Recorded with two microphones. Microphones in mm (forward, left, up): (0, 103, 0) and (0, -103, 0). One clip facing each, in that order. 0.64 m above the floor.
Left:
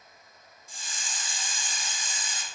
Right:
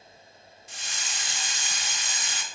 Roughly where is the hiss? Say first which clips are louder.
Right 1 dB; right.